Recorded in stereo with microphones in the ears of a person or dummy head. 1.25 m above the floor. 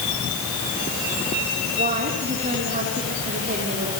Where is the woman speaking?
40° right (ahead or behind), 3.5 m.